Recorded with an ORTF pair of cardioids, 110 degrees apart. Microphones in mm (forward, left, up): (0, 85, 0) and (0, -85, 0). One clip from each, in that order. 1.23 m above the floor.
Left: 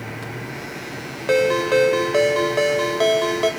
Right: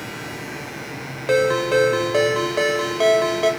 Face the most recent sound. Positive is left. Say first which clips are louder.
# even
turn(degrees=5)